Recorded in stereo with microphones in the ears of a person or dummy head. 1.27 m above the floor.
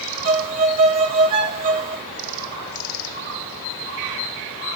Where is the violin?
45° right (ahead or behind), 0.8 m.